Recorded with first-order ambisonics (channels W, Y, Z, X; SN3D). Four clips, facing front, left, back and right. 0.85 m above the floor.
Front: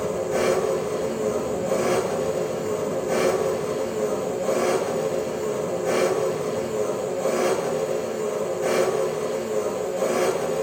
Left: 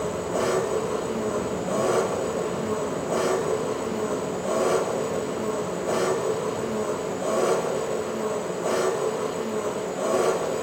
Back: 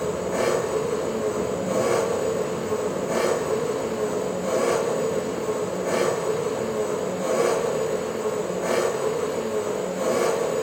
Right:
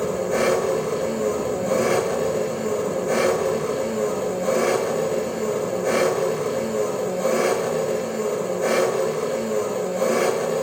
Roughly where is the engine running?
Right.